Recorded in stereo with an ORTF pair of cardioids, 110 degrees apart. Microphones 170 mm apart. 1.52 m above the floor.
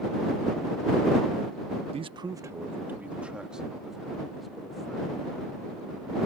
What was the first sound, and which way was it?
A man speaking, 35° right.